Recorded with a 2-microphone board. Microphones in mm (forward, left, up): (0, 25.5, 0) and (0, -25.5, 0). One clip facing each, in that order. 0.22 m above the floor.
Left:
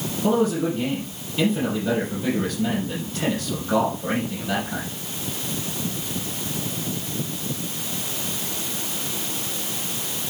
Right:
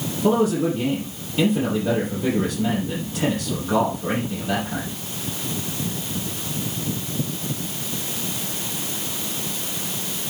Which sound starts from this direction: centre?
A man speaking, at 0.2 s.